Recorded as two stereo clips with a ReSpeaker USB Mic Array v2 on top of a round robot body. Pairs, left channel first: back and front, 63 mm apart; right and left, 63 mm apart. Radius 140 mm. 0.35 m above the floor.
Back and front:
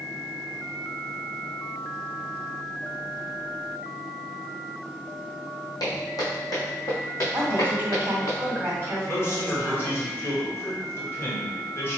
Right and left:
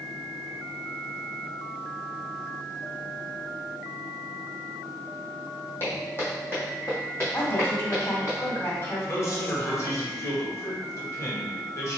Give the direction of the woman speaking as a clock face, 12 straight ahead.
1 o'clock.